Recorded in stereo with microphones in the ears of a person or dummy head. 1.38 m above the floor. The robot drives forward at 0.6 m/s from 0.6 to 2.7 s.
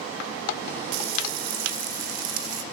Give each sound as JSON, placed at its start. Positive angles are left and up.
{"t": 0.9, "sound": "frying", "side_deg": -65, "distance_m": 1.9}